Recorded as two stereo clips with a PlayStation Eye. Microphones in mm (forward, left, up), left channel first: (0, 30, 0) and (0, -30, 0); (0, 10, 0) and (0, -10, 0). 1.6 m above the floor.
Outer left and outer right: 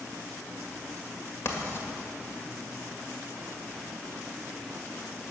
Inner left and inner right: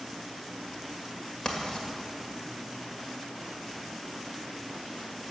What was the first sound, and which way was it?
Writing, 50° left (ahead or behind).